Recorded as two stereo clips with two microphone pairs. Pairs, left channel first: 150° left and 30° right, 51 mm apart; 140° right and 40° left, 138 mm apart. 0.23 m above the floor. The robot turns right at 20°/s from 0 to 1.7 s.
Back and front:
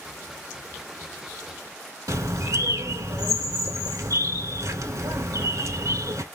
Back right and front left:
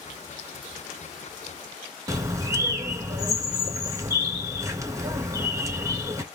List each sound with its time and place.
2.1 s a bird: 25° right, 0.6 m